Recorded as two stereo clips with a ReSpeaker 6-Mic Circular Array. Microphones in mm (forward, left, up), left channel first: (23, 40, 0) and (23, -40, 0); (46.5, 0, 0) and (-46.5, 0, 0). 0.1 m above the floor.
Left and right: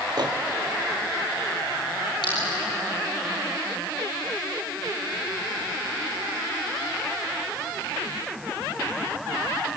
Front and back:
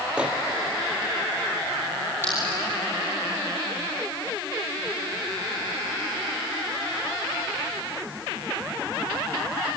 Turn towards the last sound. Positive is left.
turn(degrees=65)